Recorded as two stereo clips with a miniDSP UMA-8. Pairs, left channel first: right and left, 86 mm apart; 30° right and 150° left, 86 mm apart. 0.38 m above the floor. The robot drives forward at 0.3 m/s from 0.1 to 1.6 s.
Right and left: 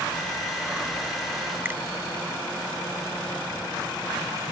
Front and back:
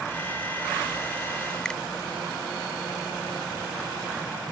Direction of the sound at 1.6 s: 45° left.